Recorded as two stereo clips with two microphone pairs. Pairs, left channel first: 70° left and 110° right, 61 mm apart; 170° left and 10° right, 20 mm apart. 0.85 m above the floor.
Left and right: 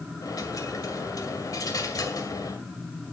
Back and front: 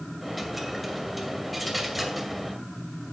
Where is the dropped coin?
75° left, 2 m.